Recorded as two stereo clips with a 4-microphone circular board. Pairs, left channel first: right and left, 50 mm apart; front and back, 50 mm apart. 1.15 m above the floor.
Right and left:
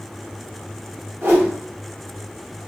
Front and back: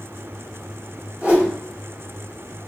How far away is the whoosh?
About 2 m.